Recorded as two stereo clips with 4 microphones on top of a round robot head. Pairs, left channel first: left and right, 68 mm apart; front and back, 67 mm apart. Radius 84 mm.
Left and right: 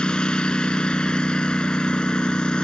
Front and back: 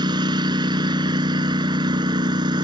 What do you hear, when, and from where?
0.0 s a lawn mower: 170° left